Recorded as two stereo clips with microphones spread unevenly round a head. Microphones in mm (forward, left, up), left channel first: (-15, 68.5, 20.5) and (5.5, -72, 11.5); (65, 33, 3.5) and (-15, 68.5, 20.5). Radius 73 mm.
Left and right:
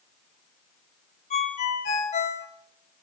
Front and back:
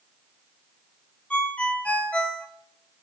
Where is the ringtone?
55° left, 1.7 m.